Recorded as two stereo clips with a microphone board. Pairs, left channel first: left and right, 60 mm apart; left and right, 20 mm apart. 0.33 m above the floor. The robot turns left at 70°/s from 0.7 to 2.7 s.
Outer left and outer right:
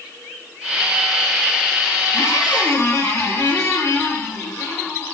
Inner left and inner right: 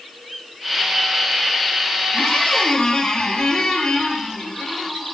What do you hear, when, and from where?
2.1 s a squeak: 90° left, 4.5 m; by 5.2 s 55° left, 4.5 m